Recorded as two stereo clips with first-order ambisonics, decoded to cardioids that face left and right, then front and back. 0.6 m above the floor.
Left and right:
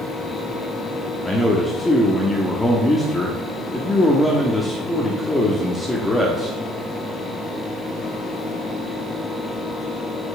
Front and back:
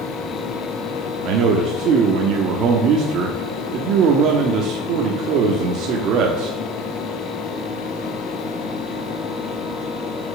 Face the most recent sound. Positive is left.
turn(degrees=165)